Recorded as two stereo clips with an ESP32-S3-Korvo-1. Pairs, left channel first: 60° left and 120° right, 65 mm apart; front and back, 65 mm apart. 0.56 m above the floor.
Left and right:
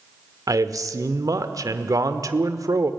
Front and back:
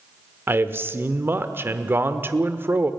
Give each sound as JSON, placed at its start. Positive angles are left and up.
{"t": 0.5, "sound": "a man speaking", "azimuth_deg": -130, "distance_m": 1.2}